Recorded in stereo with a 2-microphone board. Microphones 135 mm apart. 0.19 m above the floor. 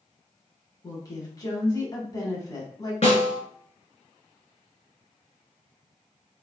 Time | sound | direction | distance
0.8 | a woman speaking | 30° left (ahead or behind) | 1.2 m
3.0 | a snare drum | 50° left (ahead or behind) | 1.7 m